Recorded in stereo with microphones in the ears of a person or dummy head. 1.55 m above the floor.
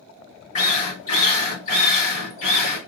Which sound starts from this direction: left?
A drill, at 0.6 s.